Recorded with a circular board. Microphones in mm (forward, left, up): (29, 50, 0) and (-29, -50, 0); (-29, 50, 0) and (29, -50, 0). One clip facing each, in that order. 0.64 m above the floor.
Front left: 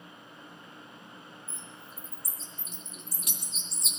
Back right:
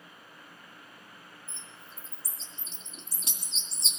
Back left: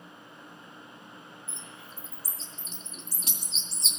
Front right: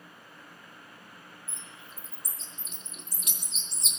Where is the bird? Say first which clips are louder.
Front left 3 dB, back left 2 dB; straight behind, 2 m.